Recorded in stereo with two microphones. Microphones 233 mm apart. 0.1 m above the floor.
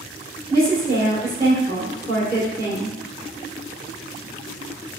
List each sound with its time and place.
0.5 s a woman speaking: 10° left (ahead or behind), 1.3 m